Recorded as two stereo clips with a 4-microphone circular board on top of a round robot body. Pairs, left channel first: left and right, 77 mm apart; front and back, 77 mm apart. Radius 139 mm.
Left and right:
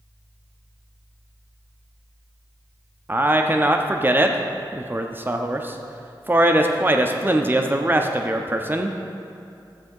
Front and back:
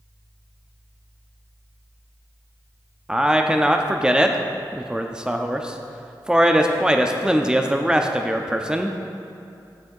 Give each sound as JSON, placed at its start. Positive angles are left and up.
{"t": 3.1, "sound": "a man speaking", "azimuth_deg": -115, "distance_m": 0.8}